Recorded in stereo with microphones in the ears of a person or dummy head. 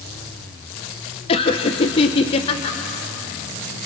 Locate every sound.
1.3 s laughter: 35° left (ahead or behind), 0.8 m